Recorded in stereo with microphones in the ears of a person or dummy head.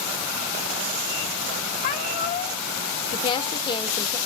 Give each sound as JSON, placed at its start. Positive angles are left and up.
{"t": 1.8, "sound": "a cat meowing", "side_deg": 50, "distance_m": 1.6}
{"t": 3.1, "sound": "a woman speaking", "side_deg": 30, "distance_m": 1.7}